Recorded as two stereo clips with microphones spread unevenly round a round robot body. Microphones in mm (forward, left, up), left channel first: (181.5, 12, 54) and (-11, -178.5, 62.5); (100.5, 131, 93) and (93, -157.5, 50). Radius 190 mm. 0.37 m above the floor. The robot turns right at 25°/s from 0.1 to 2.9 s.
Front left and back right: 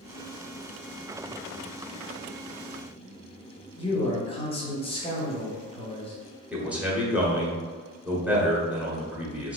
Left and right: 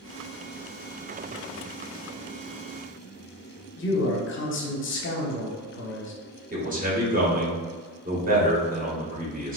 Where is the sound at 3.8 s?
90° left, 1.0 m.